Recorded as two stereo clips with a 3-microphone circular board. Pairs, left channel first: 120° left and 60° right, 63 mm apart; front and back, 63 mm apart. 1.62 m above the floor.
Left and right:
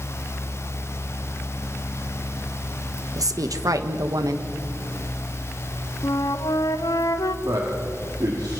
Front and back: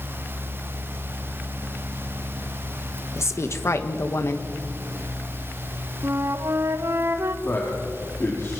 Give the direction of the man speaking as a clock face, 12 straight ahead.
2 o'clock.